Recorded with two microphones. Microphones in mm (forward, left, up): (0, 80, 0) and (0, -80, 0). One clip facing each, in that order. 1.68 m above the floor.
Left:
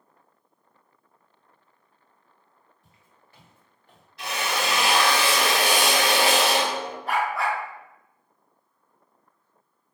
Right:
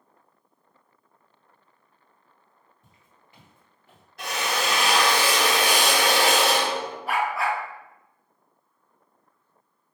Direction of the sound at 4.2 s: 50° right (ahead or behind).